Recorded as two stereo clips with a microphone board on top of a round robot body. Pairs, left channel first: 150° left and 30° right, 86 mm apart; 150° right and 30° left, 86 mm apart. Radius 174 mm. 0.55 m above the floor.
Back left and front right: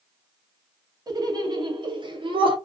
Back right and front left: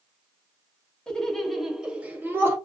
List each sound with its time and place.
1.1 s laughter: 70° right, 1.3 m; by 2.6 s 25° right, 1.2 m